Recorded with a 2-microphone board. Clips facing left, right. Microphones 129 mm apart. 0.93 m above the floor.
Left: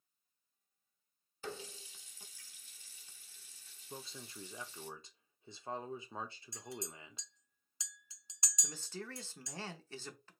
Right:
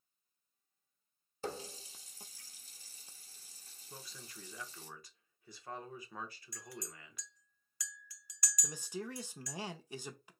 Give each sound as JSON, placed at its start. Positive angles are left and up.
{"t": 1.4, "sound": "a running tap", "side_deg": -35, "distance_m": 0.7}
{"t": 3.9, "sound": "a man speaking", "side_deg": 25, "distance_m": 1.0}
{"t": 6.5, "sound": "a clink", "side_deg": 20, "distance_m": 0.7}
{"t": 8.6, "sound": "a man speaking", "side_deg": -15, "distance_m": 0.7}